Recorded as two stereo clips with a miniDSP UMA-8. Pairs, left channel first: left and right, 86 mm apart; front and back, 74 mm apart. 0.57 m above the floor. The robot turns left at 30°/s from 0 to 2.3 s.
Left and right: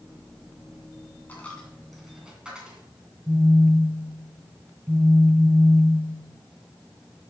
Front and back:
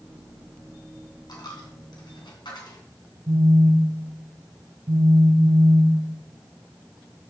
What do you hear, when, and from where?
1.3 s a dropped coin: 20° left, 2.5 m; by 2.8 s 10° right, 2.5 m
3.3 s a phone buzzing: 160° right, 0.9 m